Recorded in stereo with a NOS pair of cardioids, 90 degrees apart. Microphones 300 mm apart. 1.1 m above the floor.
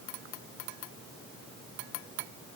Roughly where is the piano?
No piano in this recording.